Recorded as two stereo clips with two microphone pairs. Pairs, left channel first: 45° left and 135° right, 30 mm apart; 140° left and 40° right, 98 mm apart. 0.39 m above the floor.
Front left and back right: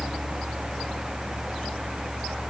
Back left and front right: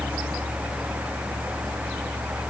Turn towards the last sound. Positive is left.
No sound to turn to.